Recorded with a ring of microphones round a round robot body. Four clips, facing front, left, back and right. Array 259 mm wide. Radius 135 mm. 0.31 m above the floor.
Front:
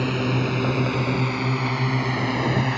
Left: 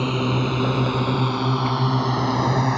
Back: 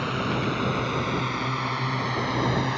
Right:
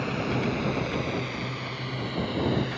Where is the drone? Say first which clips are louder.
Left 5 dB, front 3 dB; 55° left; by 2.8 s 70° left.